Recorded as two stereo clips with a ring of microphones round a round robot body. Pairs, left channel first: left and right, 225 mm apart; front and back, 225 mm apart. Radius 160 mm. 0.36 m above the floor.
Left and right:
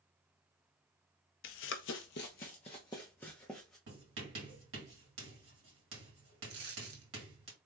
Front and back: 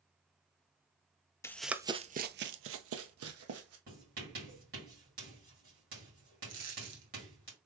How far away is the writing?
About 3 m.